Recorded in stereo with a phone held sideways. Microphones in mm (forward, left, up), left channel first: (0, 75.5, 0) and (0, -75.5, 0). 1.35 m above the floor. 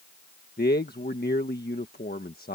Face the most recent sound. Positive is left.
turn(degrees=85)